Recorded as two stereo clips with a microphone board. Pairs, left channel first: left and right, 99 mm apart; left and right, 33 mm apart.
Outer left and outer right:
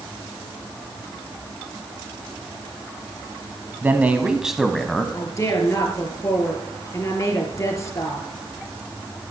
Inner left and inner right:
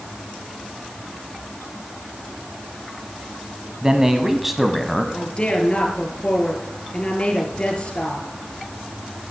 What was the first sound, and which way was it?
A man speaking, 20° right (ahead or behind).